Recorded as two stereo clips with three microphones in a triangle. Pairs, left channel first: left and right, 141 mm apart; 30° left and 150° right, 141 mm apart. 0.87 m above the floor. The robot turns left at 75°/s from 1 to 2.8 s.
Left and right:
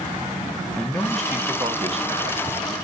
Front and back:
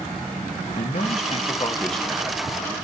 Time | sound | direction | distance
0.8 | a man speaking | 15° left | 0.7 m